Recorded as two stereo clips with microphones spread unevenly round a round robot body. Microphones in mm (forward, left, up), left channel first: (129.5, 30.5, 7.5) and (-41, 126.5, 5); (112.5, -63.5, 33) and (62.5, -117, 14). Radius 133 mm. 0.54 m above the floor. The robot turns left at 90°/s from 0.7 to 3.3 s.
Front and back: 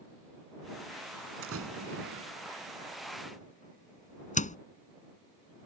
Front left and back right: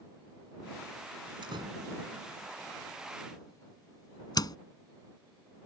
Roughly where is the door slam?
Behind.